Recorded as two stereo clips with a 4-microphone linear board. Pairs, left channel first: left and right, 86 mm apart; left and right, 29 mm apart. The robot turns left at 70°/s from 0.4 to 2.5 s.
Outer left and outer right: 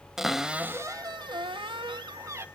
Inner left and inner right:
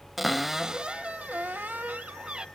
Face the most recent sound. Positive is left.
turn(degrees=-150)